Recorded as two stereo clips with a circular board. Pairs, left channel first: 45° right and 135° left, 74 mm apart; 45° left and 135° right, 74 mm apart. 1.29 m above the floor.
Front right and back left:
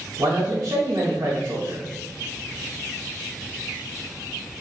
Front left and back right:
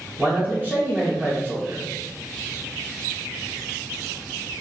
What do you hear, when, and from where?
0.2 s a man speaking: 170° left, 0.9 m